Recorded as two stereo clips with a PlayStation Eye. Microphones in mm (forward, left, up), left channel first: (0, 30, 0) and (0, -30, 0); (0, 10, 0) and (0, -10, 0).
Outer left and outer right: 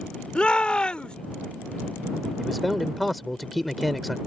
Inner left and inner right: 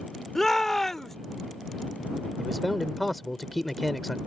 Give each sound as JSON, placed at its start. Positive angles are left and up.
{"t": 0.3, "sound": "a shout", "side_deg": 20}
{"t": 2.4, "sound": "a man speaking", "side_deg": 0}